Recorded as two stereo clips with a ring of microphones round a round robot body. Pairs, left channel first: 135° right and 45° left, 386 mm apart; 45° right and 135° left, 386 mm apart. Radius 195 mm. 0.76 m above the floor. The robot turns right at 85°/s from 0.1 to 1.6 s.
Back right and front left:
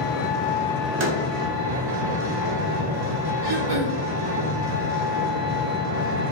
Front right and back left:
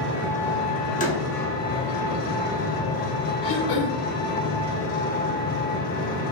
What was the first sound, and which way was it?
An engine running, 110° right.